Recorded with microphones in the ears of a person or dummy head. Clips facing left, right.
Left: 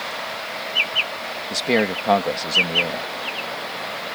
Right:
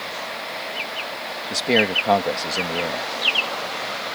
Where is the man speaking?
Centre (ahead or behind).